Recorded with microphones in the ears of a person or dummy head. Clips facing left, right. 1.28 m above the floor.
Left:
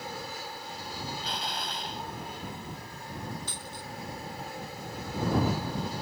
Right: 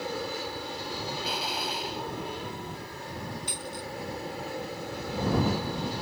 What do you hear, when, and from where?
0.0 s an aircraft: 60° right (ahead or behind)
1.2 s an explosion: 5° right (ahead or behind)
3.5 s a dropped coin: 10° right (ahead or behind)